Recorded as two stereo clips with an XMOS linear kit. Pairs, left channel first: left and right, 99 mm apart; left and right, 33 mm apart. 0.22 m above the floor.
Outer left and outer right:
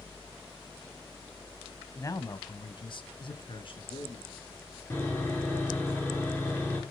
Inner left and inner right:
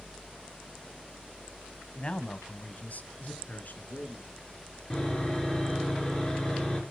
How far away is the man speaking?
About 1.1 m.